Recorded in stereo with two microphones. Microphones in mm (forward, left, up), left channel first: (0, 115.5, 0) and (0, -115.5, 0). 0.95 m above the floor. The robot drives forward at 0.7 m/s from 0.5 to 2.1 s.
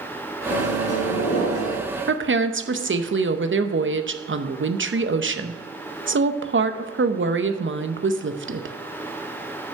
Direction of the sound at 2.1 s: 55° right (ahead or behind).